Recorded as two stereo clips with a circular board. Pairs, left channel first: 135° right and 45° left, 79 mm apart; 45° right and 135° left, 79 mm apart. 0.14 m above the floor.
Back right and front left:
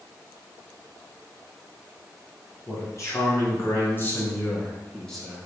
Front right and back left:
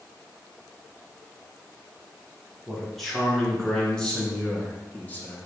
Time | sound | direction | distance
2.7 | a man speaking | 135° right | 2.5 m